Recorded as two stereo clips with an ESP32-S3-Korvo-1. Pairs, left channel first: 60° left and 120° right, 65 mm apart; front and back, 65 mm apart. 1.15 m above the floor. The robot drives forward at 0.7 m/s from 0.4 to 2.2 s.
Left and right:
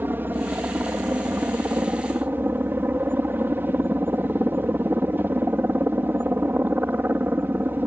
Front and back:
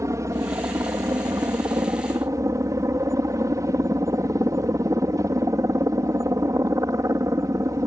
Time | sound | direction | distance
0.0 | a helicopter | 170° right | ?